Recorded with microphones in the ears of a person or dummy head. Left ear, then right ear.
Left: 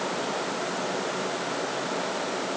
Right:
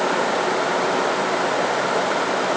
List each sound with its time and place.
Only background noise.